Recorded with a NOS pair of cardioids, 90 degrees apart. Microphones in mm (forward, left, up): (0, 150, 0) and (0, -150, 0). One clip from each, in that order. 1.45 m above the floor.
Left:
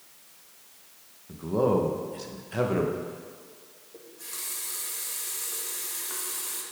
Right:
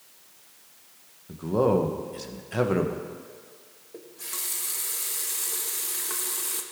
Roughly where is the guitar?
No guitar in this recording.